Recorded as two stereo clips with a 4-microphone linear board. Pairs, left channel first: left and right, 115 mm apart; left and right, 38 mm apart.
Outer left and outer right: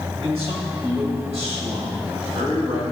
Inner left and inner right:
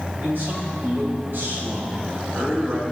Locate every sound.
0.2 s a man speaking: 65° right (ahead or behind), 3.5 m; by 2.8 s 80° right, 3 m